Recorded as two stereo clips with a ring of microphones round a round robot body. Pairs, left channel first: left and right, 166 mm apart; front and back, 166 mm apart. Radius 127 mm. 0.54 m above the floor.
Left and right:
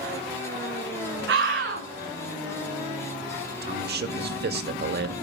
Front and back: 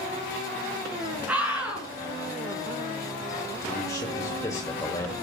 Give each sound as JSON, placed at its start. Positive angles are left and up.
{"t": 1.3, "sound": "a scream", "azimuth_deg": -95, "distance_m": 9.0}
{"t": 3.6, "sound": "a man speaking", "azimuth_deg": -75, "distance_m": 1.9}